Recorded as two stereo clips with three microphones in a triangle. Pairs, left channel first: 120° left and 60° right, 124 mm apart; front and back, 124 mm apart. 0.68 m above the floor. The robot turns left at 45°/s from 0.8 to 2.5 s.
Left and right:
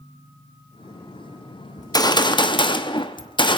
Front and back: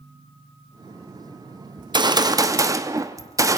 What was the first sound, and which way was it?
A gunshot, 165° left.